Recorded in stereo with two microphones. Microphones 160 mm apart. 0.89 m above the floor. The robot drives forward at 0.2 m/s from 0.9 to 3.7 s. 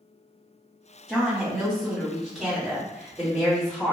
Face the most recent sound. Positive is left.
turn(degrees=-5)  # may be behind; listen again after turning